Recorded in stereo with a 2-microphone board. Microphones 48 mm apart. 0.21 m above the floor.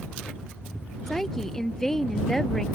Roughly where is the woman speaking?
Centre.